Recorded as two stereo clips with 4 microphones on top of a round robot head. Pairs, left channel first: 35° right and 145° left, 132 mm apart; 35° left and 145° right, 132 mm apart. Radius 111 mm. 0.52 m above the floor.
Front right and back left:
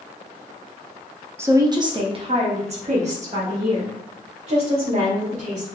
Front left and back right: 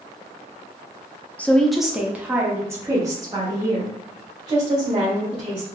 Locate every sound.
1.4 s a woman speaking: 100° left, 0.8 m; by 5.7 s 165° left, 3 m